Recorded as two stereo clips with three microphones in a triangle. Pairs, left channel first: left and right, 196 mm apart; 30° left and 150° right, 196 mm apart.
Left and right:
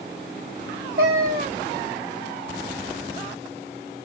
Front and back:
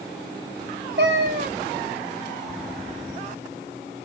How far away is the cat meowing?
About 0.9 m.